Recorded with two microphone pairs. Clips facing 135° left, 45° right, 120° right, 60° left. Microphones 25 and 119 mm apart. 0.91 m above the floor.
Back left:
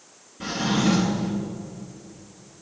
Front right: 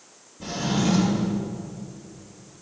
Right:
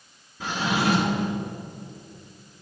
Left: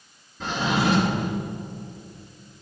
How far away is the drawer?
About 3.5 m.